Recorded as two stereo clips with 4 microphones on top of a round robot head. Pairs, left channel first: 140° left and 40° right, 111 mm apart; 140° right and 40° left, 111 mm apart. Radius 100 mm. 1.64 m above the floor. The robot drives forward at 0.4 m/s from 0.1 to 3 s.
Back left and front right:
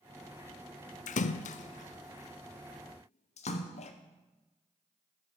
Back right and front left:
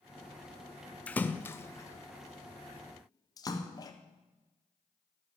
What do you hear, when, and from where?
1.1 s a splash: 145° left, 0.6 m; by 3.9 s 165° left, 1.3 m